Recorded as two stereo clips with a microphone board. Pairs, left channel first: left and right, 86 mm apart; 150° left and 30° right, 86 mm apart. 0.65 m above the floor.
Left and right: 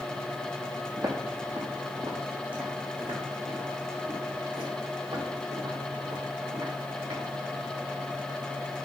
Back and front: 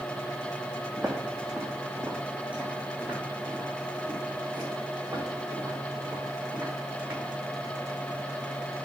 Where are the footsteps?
120° right, 1.6 m; by 7.2 s 90° right, 4.5 m.